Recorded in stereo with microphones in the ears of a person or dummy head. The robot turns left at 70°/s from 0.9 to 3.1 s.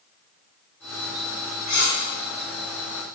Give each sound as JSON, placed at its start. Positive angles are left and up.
{"t": 1.7, "sound": "cutlery clinking", "side_deg": 40, "distance_m": 0.7}